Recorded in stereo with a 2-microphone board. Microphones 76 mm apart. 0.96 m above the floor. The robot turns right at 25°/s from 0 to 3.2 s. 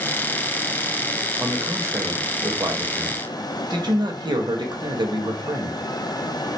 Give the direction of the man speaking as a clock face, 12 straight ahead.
5 o'clock.